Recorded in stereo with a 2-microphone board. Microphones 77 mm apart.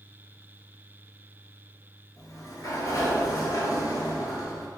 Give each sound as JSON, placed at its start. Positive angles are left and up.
{"t": 2.2, "sound": "a sliding door", "side_deg": 50, "distance_m": 0.7}